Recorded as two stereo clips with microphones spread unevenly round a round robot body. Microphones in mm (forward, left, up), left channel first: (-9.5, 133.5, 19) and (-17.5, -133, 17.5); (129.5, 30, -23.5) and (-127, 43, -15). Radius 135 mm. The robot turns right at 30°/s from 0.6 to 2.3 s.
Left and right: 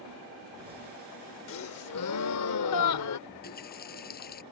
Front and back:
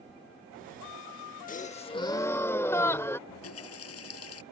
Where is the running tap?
30° left.